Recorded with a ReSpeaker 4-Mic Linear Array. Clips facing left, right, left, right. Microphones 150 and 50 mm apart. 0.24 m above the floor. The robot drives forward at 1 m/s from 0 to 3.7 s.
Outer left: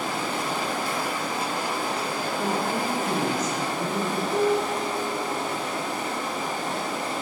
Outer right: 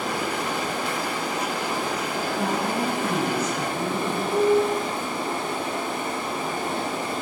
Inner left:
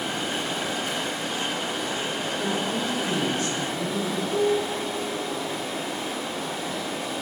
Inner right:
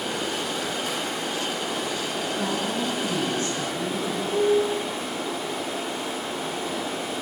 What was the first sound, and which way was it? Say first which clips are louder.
Running water: outer right 1 dB, even; 60° right (ahead or behind).